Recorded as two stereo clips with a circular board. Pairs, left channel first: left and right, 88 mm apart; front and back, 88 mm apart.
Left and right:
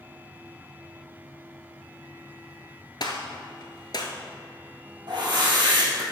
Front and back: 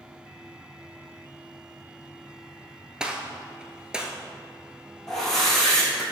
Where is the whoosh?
85° right, 2.5 m.